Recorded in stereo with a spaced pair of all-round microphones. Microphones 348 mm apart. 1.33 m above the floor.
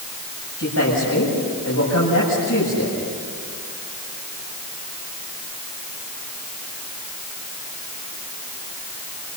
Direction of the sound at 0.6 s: 50° left (ahead or behind).